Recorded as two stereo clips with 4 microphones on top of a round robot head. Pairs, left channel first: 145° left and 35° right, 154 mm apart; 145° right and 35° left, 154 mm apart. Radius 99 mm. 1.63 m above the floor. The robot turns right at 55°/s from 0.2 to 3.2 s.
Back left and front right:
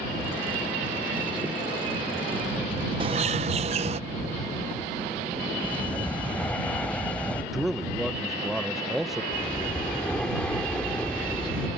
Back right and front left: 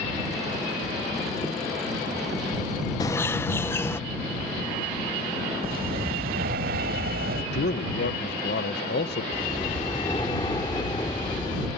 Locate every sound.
3.0 s a bird: 85° right; by 4.0 s 75° right
5.6 s breathing: 65° left
7.5 s a man speaking: 125° right
9.3 s breathing: 140° right